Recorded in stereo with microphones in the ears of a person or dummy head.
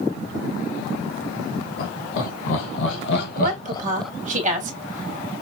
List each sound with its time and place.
1.8 s laughter: 75° left (ahead or behind), 3 m; by 4.1 s 5° left (ahead or behind), 1.2 m
3.4 s a woman speaking: 35° right (ahead or behind), 2 m